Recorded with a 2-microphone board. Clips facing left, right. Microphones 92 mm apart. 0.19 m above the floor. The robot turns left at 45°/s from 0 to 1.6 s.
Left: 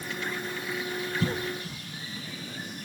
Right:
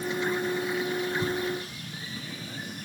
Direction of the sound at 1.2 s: 75° left (ahead or behind).